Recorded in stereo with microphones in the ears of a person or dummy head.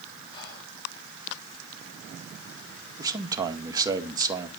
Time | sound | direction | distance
0.3 | whispering | 30° left (ahead or behind) | 5 m
3.0 | a man speaking | 20° right (ahead or behind) | 1.7 m